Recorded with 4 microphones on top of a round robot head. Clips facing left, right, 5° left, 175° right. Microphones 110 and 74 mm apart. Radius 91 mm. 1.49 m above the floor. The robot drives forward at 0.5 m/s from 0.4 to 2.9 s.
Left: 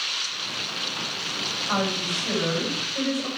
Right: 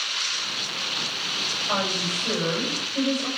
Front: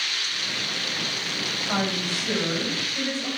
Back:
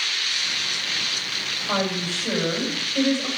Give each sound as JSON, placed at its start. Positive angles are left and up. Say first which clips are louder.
{"t": 1.7, "sound": "a woman speaking", "louder": "left 1 dB, back 2 dB", "azimuth_deg": -170, "distance_m": 7.5}